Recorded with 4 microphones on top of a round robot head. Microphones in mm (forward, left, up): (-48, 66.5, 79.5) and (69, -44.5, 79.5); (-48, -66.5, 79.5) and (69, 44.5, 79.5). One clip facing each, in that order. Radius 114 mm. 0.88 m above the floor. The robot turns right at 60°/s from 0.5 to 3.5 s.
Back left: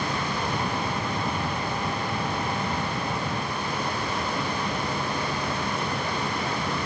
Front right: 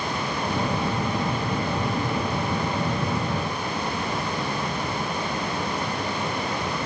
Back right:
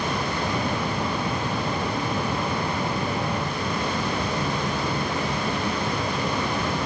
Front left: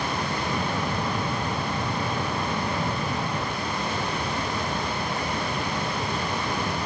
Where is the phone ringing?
I don't hear a phone ringing.